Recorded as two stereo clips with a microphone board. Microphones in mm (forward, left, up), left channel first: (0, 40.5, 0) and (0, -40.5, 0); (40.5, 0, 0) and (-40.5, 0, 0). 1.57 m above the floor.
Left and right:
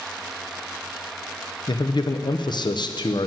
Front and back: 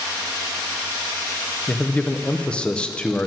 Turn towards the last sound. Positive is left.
turn(degrees=75)